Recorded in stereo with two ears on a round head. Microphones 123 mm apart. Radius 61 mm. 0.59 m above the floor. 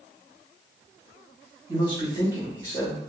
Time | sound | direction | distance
1.7 | a man speaking | 20° right (ahead or behind) | 0.9 m